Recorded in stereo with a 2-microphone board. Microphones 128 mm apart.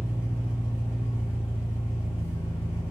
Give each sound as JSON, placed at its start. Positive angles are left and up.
{"t": 0.0, "sound": "an engine running", "side_deg": -15, "distance_m": 0.9}